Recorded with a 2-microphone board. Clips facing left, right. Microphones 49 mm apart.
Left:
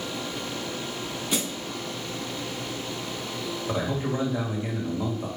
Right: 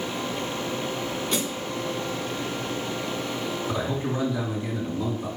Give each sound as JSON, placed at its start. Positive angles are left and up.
{"t": 1.3, "sound": "a snare drum", "side_deg": 5, "distance_m": 0.7}
{"t": 3.7, "sound": "a man speaking", "side_deg": 35, "distance_m": 1.8}